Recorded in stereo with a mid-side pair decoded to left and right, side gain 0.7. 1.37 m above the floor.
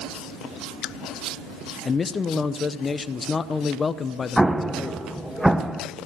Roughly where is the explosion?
Ahead.